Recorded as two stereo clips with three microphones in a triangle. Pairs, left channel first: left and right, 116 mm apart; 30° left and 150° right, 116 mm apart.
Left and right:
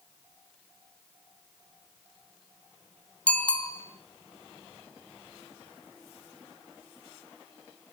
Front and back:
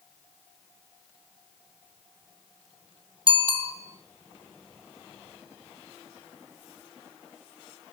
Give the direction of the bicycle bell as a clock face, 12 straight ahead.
6 o'clock.